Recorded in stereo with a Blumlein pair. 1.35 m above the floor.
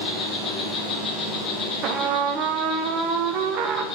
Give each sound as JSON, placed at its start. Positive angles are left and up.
{"t": 0.0, "sound": "an insect", "azimuth_deg": 15, "distance_m": 2.0}
{"t": 1.8, "sound": "a trumpet", "azimuth_deg": -35, "distance_m": 0.6}